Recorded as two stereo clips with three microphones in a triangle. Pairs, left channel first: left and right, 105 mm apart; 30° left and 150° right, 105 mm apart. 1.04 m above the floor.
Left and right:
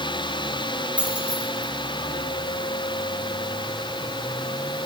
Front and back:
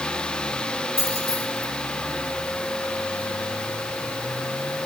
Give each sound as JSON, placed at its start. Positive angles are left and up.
{"t": 1.0, "sound": "keys jangling", "azimuth_deg": -170, "distance_m": 4.5}